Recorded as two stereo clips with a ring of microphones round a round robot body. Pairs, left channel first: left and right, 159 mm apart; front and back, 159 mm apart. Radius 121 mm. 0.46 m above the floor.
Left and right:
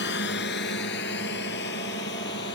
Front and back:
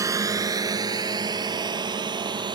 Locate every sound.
0.0 s a drone: 110° left; by 2.6 s 120° left